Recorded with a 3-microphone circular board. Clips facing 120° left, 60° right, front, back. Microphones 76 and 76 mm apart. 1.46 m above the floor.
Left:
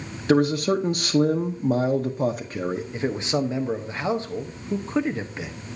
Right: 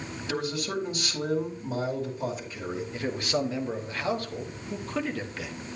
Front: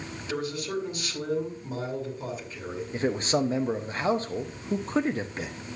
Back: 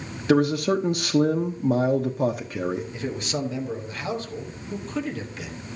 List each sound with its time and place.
0.3 s a man speaking: 155° left, 0.8 m
2.9 s a man speaking: 50° left, 1.1 m